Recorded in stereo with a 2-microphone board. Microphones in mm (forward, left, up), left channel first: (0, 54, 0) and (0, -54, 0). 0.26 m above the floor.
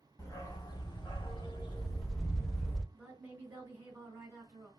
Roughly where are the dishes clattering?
I don't hear dishes clattering.